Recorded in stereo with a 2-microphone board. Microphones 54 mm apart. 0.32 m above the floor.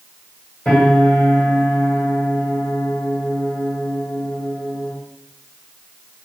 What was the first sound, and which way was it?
A piano, 15° left (ahead or behind).